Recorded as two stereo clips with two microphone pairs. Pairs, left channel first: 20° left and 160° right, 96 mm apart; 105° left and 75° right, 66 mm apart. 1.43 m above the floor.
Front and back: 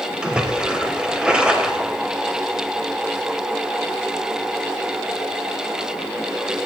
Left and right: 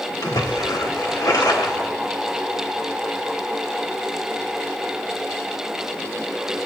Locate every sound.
0.2 s a splash: 120° left, 3 m